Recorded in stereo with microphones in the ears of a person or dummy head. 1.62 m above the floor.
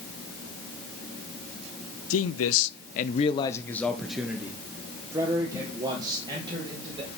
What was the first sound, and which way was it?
A man speaking, 75° left (ahead or behind).